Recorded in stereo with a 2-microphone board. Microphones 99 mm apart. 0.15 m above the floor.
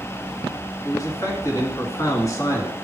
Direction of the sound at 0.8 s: 35° left (ahead or behind).